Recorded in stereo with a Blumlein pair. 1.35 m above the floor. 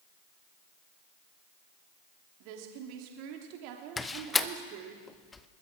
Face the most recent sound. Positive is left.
turn(degrees=10)